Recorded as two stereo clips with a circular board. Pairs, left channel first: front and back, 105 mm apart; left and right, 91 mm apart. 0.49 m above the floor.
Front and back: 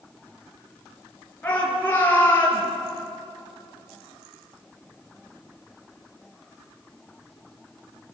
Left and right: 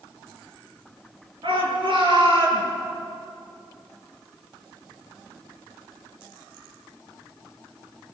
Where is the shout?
75° right, 7 m; by 2.6 s 70° right, 8.5 m.